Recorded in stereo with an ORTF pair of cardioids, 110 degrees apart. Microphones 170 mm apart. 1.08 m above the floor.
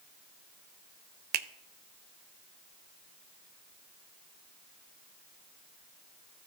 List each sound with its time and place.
1.3 s a finger snap: 70° right, 0.5 m